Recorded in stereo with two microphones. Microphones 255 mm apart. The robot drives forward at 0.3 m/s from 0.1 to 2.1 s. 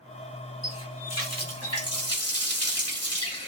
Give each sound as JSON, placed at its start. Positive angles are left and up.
{"t": 0.6, "sound": "a running tap", "side_deg": 80, "distance_m": 1.7}